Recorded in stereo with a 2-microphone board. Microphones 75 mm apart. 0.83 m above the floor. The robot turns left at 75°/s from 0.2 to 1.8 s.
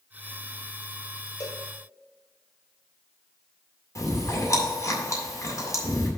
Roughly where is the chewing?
Left.